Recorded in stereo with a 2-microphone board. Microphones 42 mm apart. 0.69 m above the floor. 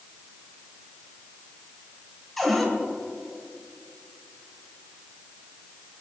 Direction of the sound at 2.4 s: 5° left (ahead or behind).